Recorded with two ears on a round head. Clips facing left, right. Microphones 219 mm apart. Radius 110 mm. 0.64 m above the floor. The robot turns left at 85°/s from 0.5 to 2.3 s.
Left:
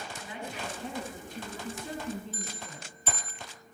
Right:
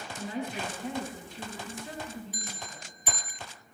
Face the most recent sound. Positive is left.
turn(degrees=-10)  # may be behind; listen again after turning